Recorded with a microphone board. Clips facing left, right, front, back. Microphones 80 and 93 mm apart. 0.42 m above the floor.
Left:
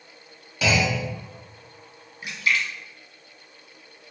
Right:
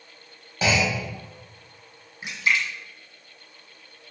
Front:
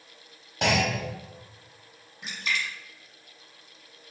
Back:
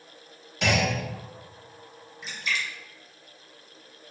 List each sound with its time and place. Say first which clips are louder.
0.6 s a clunk: even, even; 35° right, 2 m
2.2 s a splash: right 1 dB, even; 25° right, 1.1 m